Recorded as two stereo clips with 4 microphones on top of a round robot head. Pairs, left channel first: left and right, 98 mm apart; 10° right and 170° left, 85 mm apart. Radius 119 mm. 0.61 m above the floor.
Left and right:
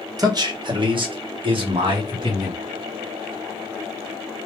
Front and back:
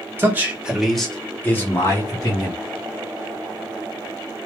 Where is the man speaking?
130° right, 1.1 m; by 2.6 s 50° right, 1.8 m.